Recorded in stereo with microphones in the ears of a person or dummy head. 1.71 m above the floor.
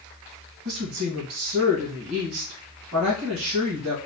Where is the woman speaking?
30° right (ahead or behind), 1.9 m.